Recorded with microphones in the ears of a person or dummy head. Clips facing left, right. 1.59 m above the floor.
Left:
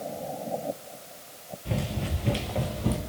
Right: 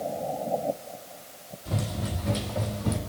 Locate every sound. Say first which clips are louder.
1.6 s running footsteps: left 1 dB; 30° left (ahead or behind), 1.9 m; by 3.0 s 45° left (ahead or behind), 2 m